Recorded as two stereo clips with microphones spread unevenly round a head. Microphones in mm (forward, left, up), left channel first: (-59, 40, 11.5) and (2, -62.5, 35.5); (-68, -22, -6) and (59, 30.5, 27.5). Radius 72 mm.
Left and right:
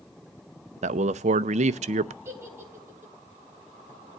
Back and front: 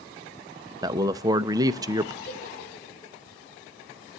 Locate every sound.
0.8 s a man speaking: 50° right, 0.6 m
2.2 s a giggle: 130° right, 4 m